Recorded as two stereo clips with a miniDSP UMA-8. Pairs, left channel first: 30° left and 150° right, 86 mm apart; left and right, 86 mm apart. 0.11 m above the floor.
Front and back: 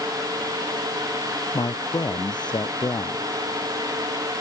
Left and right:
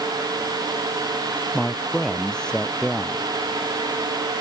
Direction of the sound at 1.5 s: 10° left.